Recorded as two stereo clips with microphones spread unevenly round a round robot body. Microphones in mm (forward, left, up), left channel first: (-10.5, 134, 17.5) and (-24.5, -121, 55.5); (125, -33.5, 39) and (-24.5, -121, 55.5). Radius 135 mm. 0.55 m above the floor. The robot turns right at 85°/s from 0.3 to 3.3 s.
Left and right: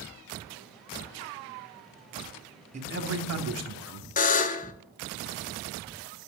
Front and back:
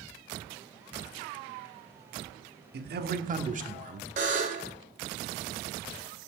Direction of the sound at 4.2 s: 150° left.